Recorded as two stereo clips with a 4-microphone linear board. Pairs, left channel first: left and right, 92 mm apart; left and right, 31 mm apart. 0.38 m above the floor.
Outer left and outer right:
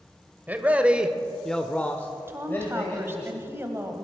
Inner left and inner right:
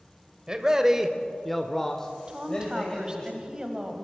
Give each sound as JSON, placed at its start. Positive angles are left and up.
{"t": 0.5, "sound": "a man speaking", "side_deg": -20, "distance_m": 1.2}
{"t": 2.3, "sound": "a woman speaking", "side_deg": -25, "distance_m": 1.7}